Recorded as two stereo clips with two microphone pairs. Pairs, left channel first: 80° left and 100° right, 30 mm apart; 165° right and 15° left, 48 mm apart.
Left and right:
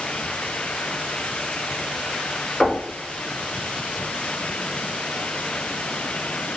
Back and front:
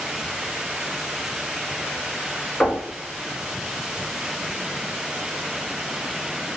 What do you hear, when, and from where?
2.6 s knocking: 145° left, 1.3 m